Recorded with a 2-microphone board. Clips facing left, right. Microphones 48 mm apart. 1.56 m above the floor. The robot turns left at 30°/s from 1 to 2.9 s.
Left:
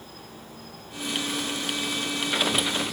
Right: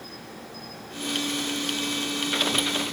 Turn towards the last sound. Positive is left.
turn(degrees=-160)